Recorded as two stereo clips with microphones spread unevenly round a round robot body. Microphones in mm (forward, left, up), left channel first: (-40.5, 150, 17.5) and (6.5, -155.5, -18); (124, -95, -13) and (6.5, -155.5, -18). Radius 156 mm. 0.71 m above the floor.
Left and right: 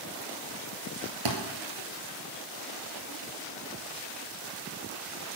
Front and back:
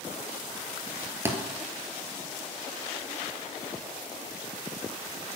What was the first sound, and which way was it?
A thud, 80° right.